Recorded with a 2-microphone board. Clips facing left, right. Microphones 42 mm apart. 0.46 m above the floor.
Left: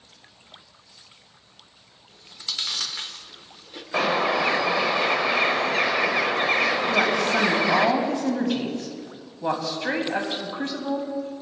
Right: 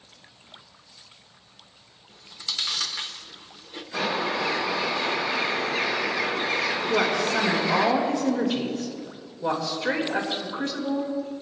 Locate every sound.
2.1 s chewing: centre (ahead or behind), 0.8 m
3.9 s a bird: 60° left (ahead or behind), 1.0 m
6.9 s a woman speaking: 20° left (ahead or behind), 2.5 m